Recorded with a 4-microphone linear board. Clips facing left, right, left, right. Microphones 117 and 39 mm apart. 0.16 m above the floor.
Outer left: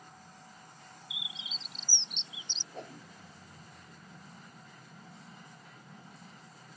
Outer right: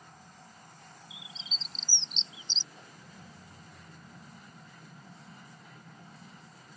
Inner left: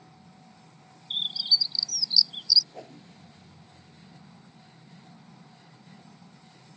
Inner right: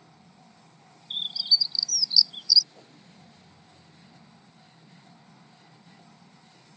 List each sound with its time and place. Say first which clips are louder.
1.1 s a bird: outer left 1 dB, even; 15° left (ahead or behind)
2.7 s a whoosh: outer left 8 dB, inner left 8 dB; 65° left (ahead or behind)